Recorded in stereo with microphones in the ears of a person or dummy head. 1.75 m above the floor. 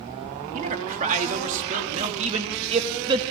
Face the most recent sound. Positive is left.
turn(degrees=-30)  # may be behind; listen again after turning